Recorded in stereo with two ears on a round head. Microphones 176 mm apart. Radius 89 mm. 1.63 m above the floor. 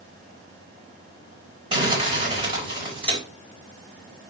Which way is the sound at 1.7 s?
25° right (ahead or behind).